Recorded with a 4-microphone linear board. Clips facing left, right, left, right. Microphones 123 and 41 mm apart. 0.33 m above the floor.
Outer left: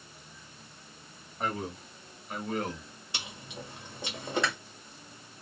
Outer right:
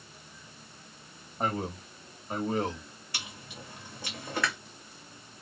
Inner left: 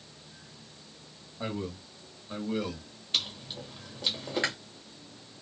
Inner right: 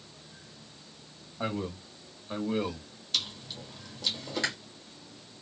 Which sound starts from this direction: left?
Chewing, at 3.1 s.